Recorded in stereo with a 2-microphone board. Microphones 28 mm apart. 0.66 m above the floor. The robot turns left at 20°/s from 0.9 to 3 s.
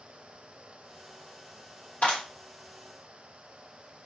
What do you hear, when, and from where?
2.0 s a clap: 60° left (ahead or behind), 1.7 m; by 2.2 s 65° left (ahead or behind), 1.7 m